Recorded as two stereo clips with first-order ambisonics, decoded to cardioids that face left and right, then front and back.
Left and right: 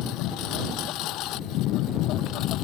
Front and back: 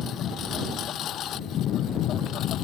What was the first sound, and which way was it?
A lawn mower, 55° left.